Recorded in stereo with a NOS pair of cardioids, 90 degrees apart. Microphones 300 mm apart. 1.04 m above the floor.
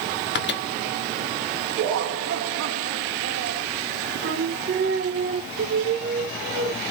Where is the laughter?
70° right, 1.5 m.